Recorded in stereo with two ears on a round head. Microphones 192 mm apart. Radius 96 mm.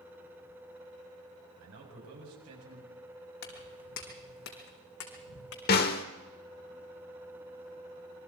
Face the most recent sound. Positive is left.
turn(degrees=45)  # may be behind; listen again after turning